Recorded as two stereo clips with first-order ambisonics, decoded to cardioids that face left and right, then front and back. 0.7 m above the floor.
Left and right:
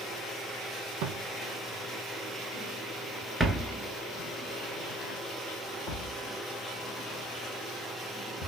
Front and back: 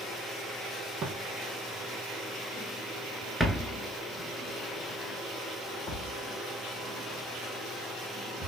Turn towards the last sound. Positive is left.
turn(degrees=65)